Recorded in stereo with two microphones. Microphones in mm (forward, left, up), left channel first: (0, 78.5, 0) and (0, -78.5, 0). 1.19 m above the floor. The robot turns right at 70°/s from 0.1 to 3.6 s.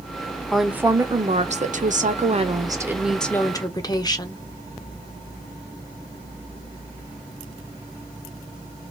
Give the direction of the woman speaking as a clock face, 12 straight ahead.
6 o'clock.